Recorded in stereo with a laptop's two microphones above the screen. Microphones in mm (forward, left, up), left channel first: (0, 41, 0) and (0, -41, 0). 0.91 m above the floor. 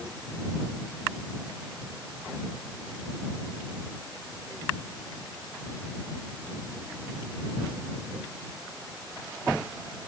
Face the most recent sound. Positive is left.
No sound to turn to.